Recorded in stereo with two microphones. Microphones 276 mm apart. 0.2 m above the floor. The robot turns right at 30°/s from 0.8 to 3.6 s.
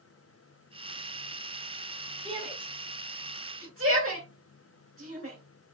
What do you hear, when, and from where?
2.2 s a shout: 20° right (ahead or behind), 2.5 m; by 5.4 s 50° right (ahead or behind), 2.5 m